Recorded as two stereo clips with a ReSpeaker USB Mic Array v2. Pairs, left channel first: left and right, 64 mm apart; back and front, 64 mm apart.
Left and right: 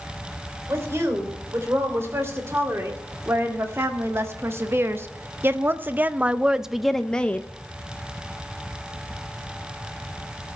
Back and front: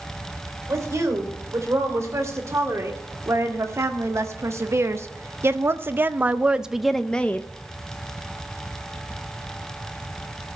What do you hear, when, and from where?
0.7 s a woman speaking: 40° right, 3 m; by 7.5 s 140° left, 0.6 m